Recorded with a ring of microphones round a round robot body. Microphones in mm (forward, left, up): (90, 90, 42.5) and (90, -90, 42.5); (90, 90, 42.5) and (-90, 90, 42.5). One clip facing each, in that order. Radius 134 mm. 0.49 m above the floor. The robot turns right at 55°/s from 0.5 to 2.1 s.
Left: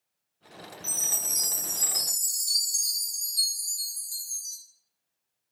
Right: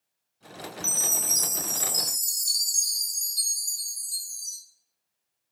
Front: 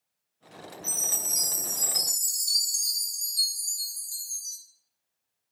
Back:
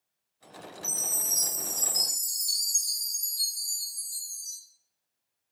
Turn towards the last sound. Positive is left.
turn(degrees=-15)